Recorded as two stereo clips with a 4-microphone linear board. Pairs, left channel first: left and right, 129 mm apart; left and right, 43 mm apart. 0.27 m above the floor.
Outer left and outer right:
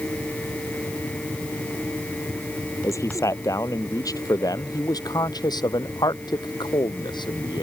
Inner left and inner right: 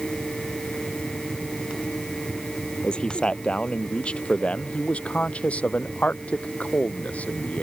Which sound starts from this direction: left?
A man speaking, at 2.8 s.